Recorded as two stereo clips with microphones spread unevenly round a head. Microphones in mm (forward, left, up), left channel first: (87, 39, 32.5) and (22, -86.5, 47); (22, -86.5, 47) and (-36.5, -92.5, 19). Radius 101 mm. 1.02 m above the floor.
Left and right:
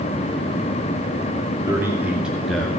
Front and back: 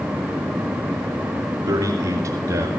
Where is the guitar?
No guitar in this recording.